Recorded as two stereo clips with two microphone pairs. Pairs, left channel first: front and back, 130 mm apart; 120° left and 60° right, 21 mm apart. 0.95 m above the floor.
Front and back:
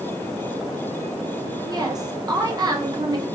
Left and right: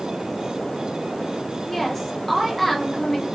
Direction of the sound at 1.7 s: Straight behind.